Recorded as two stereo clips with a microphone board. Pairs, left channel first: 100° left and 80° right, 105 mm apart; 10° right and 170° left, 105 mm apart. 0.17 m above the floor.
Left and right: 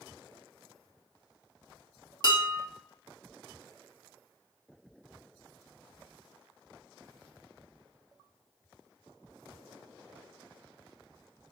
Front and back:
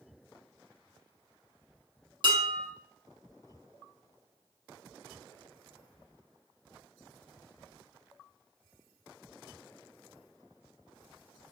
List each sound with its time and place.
2.2 s dishes clattering: 140° left, 1.6 m